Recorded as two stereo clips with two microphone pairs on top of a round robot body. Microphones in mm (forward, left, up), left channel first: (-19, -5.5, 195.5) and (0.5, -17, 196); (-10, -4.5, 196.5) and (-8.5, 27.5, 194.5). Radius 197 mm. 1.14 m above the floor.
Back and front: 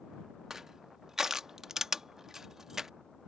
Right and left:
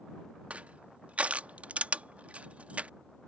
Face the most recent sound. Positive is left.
turn(degrees=40)